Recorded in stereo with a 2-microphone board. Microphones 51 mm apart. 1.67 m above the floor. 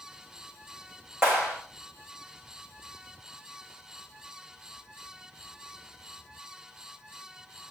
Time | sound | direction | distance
1.2 | a clap | 20° right (ahead or behind) | 7 m